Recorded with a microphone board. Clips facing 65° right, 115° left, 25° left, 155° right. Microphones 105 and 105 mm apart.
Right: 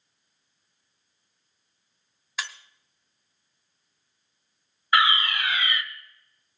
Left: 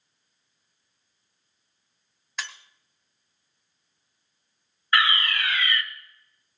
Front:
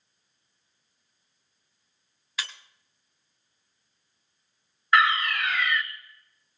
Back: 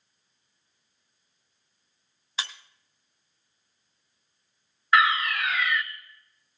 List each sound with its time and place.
2.4 s breaking glass: 150° right, 1.1 m
4.9 s a fire alarm: 70° right, 0.9 m